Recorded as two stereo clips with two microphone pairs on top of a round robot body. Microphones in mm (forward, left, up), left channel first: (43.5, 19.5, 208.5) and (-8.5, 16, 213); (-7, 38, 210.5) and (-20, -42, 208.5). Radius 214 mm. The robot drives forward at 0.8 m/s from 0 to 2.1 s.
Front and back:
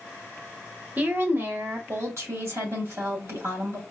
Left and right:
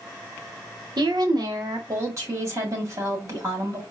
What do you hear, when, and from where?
1.0 s a woman speaking: 120° right, 1.0 m; by 3.8 s 150° right, 1.6 m